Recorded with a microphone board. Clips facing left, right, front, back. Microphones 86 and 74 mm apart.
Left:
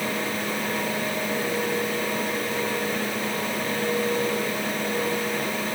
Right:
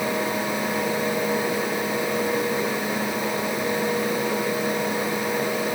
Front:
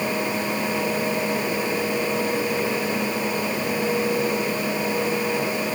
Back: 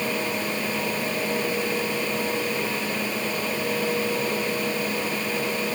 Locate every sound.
Only background noise.